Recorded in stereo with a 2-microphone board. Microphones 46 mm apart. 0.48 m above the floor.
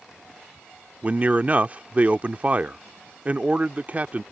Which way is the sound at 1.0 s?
35° right (ahead or behind).